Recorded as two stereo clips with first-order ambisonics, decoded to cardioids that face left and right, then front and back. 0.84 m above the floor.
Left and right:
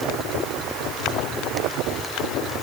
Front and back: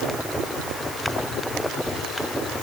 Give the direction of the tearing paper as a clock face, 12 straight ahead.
No tearing paper in this recording.